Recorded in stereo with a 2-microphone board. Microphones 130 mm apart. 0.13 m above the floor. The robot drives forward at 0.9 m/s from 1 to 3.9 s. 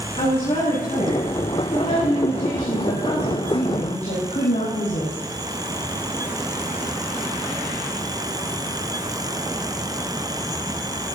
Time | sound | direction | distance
0.2 | a woman speaking | 40° left (ahead or behind) | 6.5 m